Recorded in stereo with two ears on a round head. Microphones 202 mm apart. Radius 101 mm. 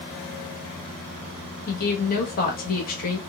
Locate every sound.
1.7 s a woman speaking: 40° left (ahead or behind), 1.3 m